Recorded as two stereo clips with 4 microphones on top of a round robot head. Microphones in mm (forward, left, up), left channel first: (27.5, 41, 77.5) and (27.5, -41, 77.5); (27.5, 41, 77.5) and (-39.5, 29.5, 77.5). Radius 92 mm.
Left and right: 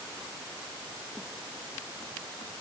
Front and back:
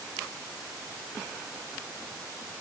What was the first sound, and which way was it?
Only background noise.